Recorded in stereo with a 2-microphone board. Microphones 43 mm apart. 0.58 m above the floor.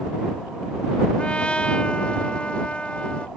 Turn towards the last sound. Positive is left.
turn(degrees=25)  # may be behind; listen again after turning